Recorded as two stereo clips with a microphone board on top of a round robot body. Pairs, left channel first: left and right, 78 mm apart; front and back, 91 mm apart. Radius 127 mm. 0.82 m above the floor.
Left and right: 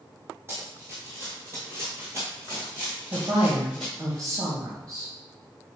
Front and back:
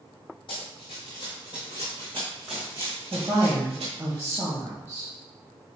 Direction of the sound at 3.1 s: 110° right.